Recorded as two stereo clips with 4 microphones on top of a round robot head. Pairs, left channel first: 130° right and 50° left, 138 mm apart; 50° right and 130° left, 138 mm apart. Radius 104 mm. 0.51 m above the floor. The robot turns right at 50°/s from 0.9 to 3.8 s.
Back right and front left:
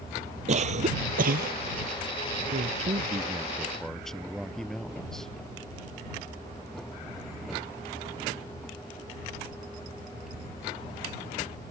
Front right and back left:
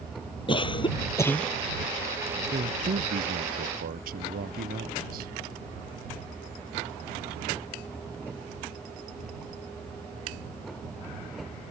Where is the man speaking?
80° left; by 5.3 s 140° left.